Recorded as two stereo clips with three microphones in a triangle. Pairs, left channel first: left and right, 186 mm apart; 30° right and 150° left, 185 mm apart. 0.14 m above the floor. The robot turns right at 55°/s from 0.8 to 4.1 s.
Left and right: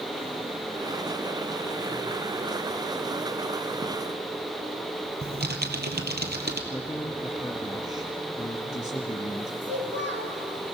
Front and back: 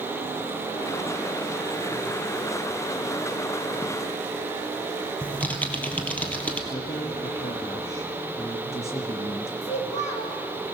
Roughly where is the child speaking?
Right.